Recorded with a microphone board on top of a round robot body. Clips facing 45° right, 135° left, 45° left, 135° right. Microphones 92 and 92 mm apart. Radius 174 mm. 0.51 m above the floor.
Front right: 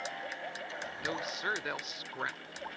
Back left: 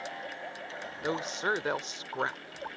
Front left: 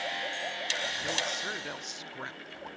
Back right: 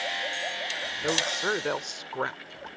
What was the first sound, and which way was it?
A woman speaking, 165° right.